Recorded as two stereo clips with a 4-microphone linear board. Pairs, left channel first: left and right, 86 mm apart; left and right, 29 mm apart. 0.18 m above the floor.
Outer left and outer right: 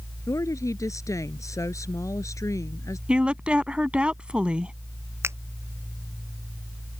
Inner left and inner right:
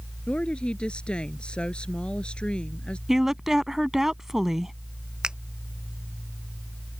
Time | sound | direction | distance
0.3 | a woman speaking | 40° left (ahead or behind) | ?
3.1 | a woman speaking | 10° right (ahead or behind) | ?
5.2 | a finger snap | 30° right (ahead or behind) | ?